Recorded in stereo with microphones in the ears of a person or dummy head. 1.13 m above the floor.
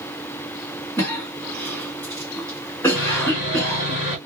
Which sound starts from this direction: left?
Sawing, at 3.0 s.